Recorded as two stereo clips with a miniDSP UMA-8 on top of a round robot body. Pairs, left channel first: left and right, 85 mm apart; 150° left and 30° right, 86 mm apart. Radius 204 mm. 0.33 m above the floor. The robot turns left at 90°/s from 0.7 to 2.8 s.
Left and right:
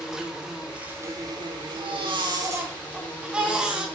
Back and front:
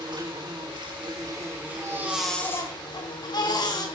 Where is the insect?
10° right, 3.5 m; by 4.0 s 165° left, 3.5 m.